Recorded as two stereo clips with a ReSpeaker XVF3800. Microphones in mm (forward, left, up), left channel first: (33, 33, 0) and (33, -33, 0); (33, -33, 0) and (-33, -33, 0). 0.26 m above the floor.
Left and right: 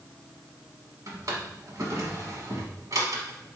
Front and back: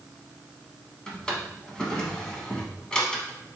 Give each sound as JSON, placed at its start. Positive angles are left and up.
{"t": 1.1, "sound": "a drawer", "azimuth_deg": -75, "distance_m": 1.0}